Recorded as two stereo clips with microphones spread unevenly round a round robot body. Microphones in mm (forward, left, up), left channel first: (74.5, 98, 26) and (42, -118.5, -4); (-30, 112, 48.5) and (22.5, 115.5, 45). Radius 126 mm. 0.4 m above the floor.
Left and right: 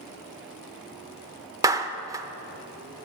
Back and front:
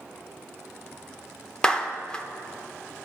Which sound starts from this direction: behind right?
A clap, at 1.6 s.